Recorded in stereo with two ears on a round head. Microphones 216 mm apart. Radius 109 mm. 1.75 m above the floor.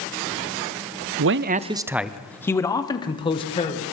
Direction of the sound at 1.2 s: 60° right (ahead or behind).